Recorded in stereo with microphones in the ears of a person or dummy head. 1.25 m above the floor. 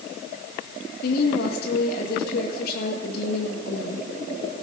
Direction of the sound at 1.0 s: 60° left (ahead or behind).